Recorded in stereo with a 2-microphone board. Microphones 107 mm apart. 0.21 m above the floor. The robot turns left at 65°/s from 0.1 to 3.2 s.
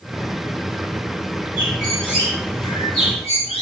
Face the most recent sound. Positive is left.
turn(degrees=95)